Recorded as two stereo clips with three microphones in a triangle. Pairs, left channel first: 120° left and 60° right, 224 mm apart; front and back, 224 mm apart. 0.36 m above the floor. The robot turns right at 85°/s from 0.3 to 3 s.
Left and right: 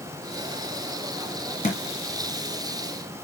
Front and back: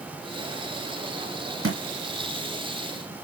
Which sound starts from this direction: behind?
A thud, at 1.6 s.